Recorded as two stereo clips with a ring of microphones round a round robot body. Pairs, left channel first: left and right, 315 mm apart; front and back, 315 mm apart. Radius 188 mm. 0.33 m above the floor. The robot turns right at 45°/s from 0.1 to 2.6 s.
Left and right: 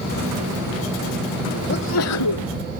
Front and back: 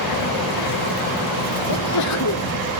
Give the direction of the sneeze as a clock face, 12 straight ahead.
11 o'clock.